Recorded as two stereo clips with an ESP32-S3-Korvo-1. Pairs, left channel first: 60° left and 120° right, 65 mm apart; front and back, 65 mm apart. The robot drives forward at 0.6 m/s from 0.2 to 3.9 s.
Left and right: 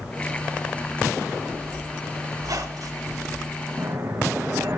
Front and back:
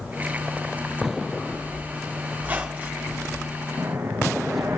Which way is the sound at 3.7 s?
160° right.